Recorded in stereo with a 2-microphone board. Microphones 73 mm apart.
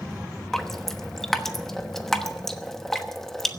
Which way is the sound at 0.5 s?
5° left (ahead or behind).